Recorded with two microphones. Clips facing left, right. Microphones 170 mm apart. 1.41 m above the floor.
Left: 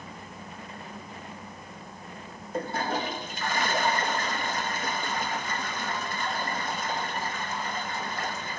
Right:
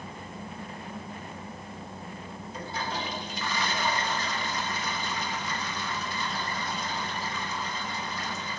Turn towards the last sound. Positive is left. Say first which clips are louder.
# left 6 dB
turn(degrees=50)  # may be behind; listen again after turning